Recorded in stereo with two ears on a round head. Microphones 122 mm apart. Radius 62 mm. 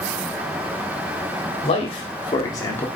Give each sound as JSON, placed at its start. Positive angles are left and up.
{"t": 1.6, "sound": "a man speaking", "side_deg": 45, "distance_m": 1.3}